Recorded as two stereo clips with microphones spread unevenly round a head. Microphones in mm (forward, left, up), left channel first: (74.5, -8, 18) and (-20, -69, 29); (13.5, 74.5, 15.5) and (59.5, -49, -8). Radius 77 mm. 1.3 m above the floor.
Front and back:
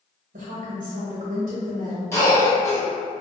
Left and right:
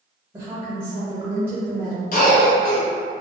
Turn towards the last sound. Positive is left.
turn(degrees=95)